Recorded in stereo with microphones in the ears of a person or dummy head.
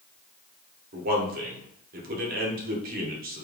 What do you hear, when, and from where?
0.9 s a man speaking: 45° right (ahead or behind), 1.0 m